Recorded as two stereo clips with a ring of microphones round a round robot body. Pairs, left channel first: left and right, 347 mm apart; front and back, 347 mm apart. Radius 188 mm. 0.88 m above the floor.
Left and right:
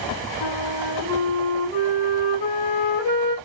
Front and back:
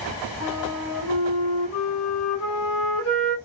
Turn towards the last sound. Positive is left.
turn(degrees=55)